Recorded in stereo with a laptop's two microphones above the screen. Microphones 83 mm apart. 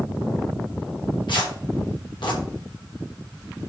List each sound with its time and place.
1.3 s tearing paper: 70° left (ahead or behind), 4 m